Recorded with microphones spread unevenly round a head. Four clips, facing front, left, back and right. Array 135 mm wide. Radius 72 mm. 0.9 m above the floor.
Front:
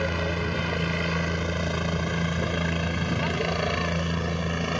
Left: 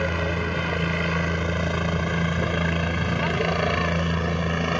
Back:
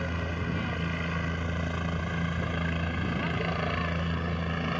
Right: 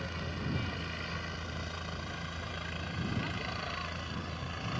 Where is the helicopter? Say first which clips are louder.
Left 14 dB, front 6 dB; 55° left; by 4.8 s 70° left.